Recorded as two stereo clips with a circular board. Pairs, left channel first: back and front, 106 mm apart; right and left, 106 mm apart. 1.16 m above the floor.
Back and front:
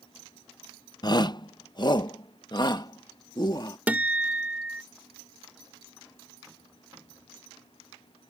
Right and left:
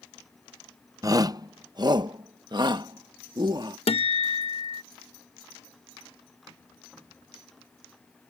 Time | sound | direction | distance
1.0 | a shout | 140° left | ?
3.9 | a guitar | 75° right | ?